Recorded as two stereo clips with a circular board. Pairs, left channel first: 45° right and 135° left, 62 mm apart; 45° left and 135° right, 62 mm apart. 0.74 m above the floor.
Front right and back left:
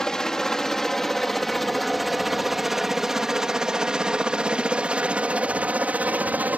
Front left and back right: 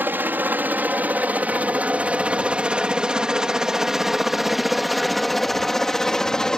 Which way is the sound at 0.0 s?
115° right.